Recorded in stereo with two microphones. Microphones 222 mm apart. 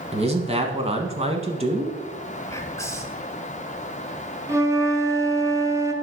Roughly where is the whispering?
Centre.